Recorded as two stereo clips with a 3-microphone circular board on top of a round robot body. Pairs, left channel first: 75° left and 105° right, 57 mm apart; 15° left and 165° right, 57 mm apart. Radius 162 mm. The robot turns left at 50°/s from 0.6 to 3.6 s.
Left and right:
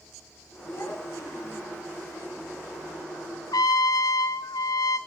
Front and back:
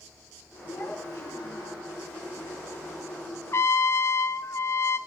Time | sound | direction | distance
0.7 | a child speaking | 45° left | 5.5 m
3.5 | a trumpet | 65° left | 0.5 m